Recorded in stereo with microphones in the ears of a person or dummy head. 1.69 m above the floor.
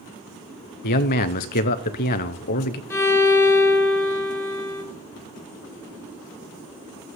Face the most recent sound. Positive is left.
turn(degrees=15)  # may be behind; listen again after turning